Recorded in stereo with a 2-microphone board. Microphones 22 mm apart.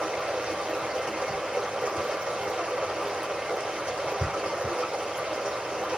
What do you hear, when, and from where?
0.0 s running water: 65° right (ahead or behind), 2.5 m